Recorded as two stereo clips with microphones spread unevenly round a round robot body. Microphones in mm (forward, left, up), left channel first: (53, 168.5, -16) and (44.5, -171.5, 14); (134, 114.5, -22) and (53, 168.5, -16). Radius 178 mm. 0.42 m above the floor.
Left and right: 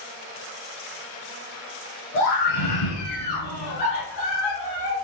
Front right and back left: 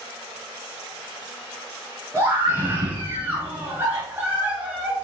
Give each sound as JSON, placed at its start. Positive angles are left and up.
{"t": 2.1, "sound": "a scream", "azimuth_deg": 85, "distance_m": 5.5}